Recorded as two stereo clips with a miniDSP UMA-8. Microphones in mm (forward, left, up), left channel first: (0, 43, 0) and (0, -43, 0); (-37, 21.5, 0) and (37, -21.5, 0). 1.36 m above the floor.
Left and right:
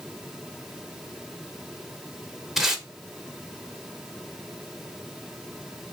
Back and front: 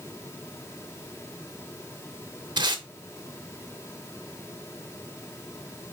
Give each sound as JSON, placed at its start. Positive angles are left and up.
{"t": 2.6, "sound": "tape being pulled", "azimuth_deg": -5, "distance_m": 0.8}